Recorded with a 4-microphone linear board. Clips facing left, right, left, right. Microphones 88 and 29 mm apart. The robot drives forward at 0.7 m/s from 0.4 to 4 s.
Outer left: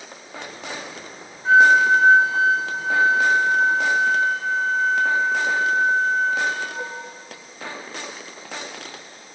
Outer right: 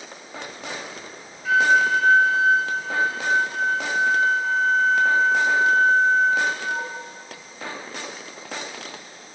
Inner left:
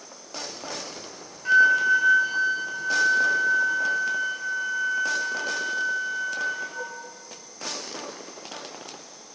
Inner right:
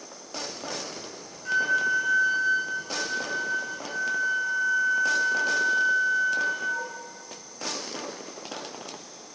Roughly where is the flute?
Left.